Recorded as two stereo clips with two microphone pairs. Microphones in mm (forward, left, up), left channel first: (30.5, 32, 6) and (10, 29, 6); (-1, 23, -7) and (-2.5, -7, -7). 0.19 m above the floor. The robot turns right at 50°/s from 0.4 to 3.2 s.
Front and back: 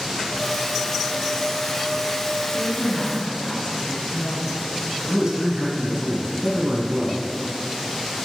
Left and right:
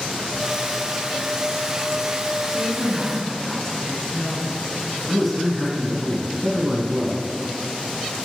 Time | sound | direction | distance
2.5 | a woman speaking | 15° right | 2 m
5.1 | a man speaking | 170° left | 1.3 m